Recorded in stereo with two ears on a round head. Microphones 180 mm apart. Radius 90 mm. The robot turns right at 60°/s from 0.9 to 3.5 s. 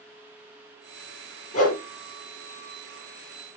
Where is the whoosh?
35° left (ahead or behind), 5.5 m; by 1.8 s 50° left (ahead or behind), 5.5 m.